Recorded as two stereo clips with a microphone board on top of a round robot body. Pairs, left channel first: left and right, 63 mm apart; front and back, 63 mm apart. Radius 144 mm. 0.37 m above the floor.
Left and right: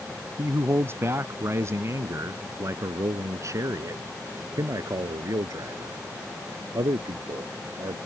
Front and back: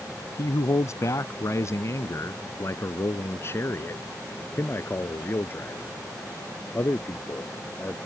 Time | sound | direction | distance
0.4 | a man speaking | 35° right | ?